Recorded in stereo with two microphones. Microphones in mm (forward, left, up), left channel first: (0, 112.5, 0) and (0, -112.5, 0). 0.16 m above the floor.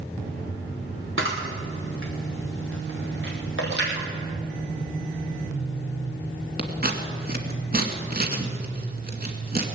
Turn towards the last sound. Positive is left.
turn(degrees=-45)  # may be behind; listen again after turning